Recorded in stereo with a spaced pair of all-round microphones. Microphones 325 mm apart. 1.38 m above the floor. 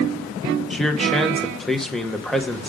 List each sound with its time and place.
0.7 s a man speaking: centre (ahead or behind), 1.0 m